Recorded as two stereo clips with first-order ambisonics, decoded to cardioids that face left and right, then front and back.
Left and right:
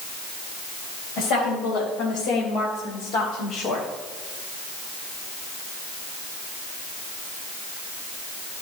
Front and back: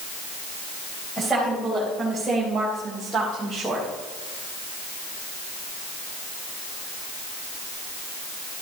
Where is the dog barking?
I don't hear a dog barking.